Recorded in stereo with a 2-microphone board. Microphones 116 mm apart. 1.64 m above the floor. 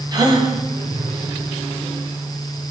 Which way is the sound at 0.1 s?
35° right (ahead or behind).